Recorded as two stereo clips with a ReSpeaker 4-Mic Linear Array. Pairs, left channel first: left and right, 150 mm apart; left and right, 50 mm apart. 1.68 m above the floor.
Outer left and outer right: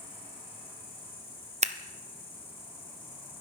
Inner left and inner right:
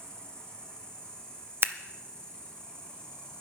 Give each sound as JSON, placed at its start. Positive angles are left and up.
{"t": 0.0, "sound": "an insect", "side_deg": 15, "distance_m": 5.0}
{"t": 1.6, "sound": "scissors", "side_deg": -55, "distance_m": 0.6}